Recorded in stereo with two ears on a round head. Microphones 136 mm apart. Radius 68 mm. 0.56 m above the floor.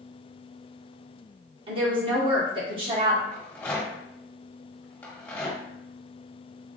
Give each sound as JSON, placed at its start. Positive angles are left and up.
{"t": 1.7, "sound": "a woman speaking", "side_deg": -35, "distance_m": 1.7}
{"t": 3.3, "sound": "a rattle", "side_deg": 10, "distance_m": 1.4}